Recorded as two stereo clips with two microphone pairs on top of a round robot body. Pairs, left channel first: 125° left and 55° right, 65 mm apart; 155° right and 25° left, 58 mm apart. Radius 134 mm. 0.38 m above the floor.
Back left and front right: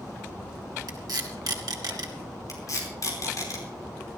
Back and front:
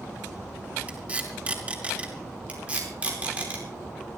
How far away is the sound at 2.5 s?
About 5 m.